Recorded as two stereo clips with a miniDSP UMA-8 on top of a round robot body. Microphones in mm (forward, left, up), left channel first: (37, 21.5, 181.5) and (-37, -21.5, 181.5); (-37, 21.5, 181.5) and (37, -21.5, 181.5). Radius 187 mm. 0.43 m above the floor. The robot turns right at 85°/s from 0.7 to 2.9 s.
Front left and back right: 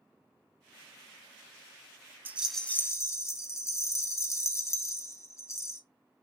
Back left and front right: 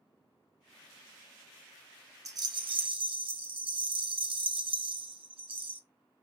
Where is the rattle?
80° right, 0.8 m; by 5.8 s 25° right, 0.8 m.